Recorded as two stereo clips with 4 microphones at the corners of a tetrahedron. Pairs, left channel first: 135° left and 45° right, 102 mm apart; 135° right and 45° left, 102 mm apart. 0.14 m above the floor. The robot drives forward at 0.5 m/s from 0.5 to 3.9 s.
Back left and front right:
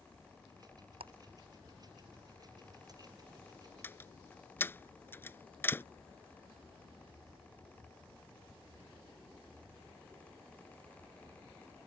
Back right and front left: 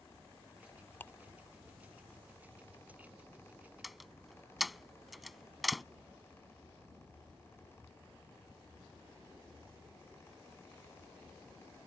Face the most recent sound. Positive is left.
turn(degrees=135)